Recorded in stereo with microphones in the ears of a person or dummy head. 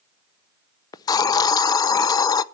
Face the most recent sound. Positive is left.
turn(degrees=25)  # may be behind; listen again after turning